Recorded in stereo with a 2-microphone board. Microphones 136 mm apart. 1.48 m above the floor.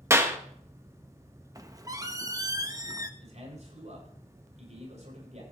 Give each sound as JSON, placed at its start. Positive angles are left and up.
{"t": 0.1, "sound": "a clap", "side_deg": -20, "distance_m": 1.1}
{"t": 1.6, "sound": "a squeak", "side_deg": -25, "distance_m": 0.8}
{"t": 3.2, "sound": "a man speaking", "side_deg": -60, "distance_m": 7.5}